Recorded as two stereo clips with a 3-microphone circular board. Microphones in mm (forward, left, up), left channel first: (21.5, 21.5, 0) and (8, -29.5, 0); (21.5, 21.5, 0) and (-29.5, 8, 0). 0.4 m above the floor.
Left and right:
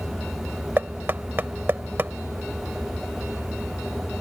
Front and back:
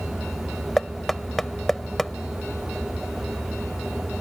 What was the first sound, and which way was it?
Knocking, 65° right.